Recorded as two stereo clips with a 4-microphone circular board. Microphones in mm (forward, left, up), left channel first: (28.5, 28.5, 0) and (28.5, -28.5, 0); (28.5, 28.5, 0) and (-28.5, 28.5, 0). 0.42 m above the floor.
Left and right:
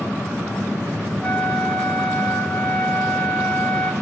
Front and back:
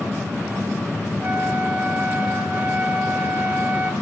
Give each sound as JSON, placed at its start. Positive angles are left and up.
{"t": 1.2, "sound": "a flute", "azimuth_deg": 150, "distance_m": 1.0}